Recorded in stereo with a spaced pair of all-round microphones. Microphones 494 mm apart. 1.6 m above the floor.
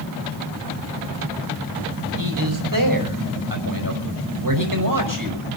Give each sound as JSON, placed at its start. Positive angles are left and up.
{"t": 2.2, "sound": "a man speaking", "side_deg": -45, "distance_m": 5.5}